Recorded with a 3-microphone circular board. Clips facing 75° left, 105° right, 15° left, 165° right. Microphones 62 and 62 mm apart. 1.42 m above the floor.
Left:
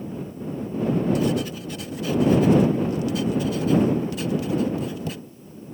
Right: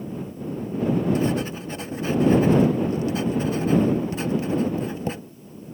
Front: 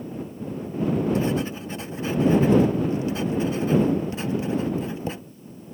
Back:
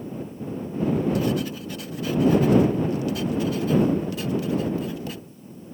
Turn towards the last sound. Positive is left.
turn(degrees=-50)